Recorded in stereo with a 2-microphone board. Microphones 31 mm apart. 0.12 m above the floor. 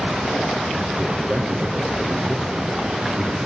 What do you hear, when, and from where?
1.0 s a man speaking: 45° right (ahead or behind), 4 m